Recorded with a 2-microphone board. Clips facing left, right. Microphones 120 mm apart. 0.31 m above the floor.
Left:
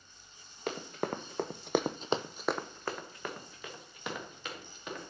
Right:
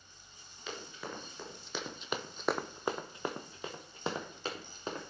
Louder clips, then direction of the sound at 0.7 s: Left 8 dB; 55° left (ahead or behind).